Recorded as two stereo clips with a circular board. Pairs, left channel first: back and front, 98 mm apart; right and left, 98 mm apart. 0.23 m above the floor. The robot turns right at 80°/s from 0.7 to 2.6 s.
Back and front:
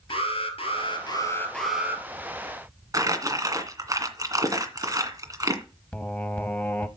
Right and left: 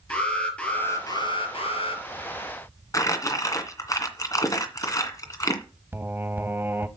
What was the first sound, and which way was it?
An alarm, 170° right.